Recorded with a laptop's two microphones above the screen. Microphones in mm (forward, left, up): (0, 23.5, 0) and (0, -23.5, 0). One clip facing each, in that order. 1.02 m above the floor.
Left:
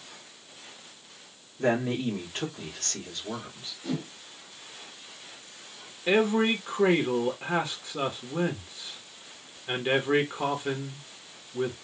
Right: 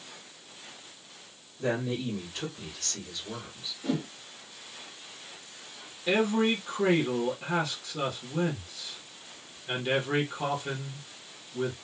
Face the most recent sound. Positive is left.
turn(degrees=20)  # may be behind; listen again after turning